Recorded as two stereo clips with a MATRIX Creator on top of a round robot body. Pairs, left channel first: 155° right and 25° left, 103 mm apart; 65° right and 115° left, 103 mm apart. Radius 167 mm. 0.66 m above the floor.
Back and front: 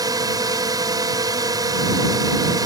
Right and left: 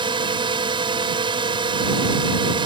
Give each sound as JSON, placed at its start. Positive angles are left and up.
{"t": 0.0, "sound": "a drone", "azimuth_deg": 75}